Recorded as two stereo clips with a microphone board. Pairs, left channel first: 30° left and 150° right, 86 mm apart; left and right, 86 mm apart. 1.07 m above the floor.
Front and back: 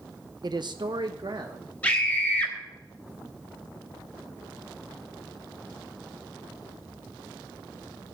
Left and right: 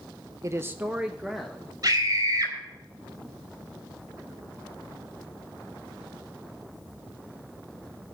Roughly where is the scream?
Ahead right.